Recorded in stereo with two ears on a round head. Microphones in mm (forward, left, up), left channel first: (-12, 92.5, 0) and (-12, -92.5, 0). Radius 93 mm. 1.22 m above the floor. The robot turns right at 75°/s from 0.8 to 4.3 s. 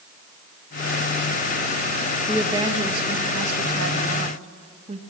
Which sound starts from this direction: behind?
A woman speaking, at 2.3 s.